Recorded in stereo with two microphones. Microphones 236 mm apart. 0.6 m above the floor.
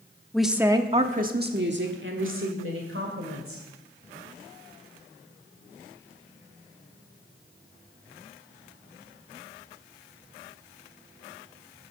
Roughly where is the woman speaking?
Centre.